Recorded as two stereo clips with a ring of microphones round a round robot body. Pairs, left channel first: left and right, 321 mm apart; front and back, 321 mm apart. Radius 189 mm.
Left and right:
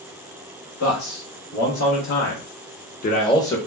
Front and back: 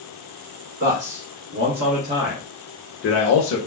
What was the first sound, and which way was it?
A man speaking, 135° left.